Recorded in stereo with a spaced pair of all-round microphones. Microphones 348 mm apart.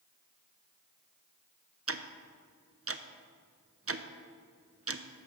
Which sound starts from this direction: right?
Ticking, at 1.9 s.